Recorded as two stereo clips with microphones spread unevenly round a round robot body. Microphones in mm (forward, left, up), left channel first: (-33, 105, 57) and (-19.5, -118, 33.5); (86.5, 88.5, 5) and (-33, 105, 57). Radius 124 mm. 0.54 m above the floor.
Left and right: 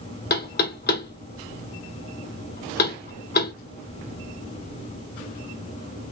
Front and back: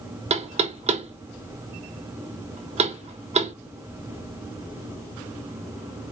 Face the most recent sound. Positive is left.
turn(degrees=130)